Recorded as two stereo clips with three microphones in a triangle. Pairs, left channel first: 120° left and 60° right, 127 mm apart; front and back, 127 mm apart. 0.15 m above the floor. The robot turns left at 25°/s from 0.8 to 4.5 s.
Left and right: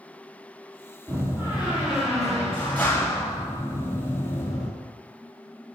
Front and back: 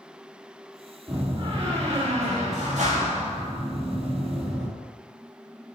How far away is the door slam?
About 3.5 m.